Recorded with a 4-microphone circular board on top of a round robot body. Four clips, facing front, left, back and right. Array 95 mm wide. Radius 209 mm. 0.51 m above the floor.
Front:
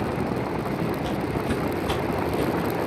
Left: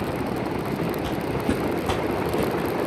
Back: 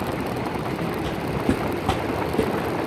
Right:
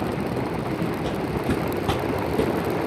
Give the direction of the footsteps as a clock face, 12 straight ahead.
8 o'clock.